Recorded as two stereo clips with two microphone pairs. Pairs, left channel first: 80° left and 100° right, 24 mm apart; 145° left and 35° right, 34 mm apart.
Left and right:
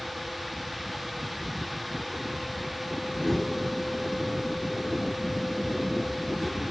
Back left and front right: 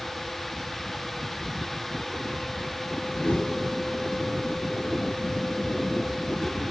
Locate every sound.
3.1 s a whoosh: 150° left, 1.8 m